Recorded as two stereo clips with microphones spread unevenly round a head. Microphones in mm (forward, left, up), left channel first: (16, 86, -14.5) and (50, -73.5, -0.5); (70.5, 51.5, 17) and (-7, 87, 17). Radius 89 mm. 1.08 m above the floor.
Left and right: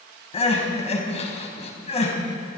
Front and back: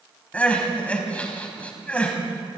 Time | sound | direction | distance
0.3 | crying | 50° left | 4.5 m